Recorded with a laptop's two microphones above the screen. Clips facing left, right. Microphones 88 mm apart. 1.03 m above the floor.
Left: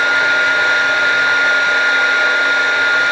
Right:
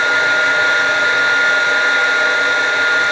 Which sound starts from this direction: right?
A fan, at 0.0 s.